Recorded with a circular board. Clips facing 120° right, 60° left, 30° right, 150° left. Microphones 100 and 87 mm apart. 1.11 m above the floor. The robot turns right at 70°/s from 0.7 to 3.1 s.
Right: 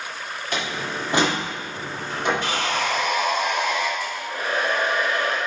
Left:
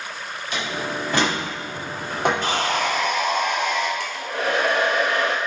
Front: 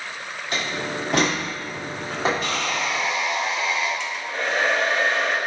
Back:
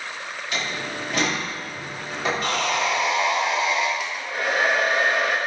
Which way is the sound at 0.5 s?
80° right.